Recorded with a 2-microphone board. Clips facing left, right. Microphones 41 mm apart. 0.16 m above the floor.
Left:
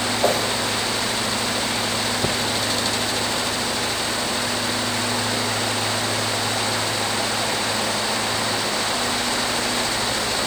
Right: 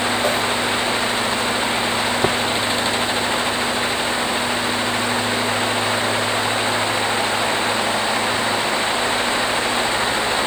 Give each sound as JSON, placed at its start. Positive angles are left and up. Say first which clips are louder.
{"t": 0.2, "sound": "a whoosh", "louder": "left 3 dB", "side_deg": 45, "distance_m": 8.0}
{"t": 2.2, "sound": "tapping", "louder": "right 6 dB", "side_deg": -30, "distance_m": 2.5}